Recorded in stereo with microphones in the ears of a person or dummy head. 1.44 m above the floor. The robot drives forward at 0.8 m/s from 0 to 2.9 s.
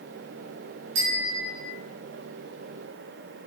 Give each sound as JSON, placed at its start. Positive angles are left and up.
{"t": 0.9, "sound": "a bicycle bell", "side_deg": -75, "distance_m": 5.5}